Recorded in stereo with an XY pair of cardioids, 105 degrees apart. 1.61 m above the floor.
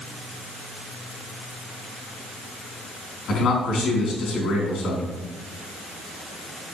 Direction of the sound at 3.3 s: 65° left.